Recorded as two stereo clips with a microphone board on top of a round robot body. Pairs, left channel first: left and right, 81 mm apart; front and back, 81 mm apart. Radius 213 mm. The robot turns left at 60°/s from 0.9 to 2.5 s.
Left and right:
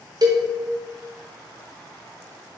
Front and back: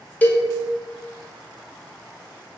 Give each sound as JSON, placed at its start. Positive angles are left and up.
{"t": 0.2, "sound": "a cowbell", "azimuth_deg": -70, "distance_m": 0.6}